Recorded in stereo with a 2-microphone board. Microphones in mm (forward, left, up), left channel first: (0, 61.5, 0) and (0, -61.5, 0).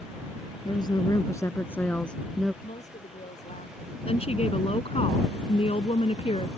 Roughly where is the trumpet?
I don't hear a trumpet.